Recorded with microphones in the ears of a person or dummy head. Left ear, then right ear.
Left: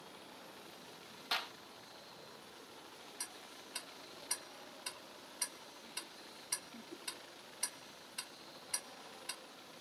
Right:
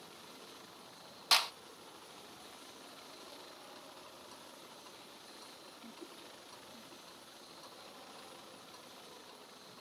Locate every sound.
1.3 s a clap: 30° right (ahead or behind)
3.2 s ticking: 45° left (ahead or behind)